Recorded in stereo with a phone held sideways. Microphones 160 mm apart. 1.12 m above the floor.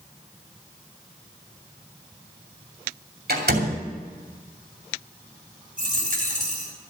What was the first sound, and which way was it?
A door slam, 75° right (ahead or behind).